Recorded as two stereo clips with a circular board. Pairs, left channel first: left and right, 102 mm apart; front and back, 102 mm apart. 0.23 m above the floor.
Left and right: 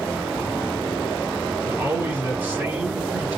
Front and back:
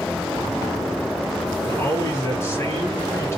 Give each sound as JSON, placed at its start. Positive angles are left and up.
{"t": 1.6, "sound": "a man speaking", "azimuth_deg": -35, "distance_m": 1.8}